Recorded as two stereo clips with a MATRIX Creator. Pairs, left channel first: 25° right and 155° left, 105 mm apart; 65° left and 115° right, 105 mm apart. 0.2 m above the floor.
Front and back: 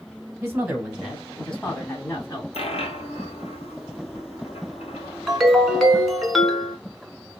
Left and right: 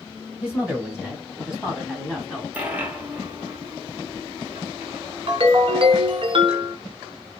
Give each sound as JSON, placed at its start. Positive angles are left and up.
{"t": 0.4, "sound": "a woman speaking", "azimuth_deg": -175, "distance_m": 1.4}
{"t": 2.5, "sound": "a dropped coin", "azimuth_deg": -35, "distance_m": 1.0}
{"t": 5.3, "sound": "a ringtone", "azimuth_deg": -110, "distance_m": 0.8}